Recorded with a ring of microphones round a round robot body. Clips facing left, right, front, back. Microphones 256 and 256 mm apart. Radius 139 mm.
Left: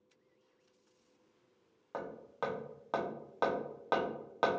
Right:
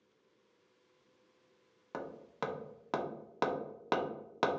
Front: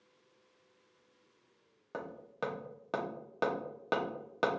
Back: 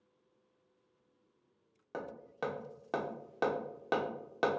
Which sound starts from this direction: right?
Hammering, at 1.9 s.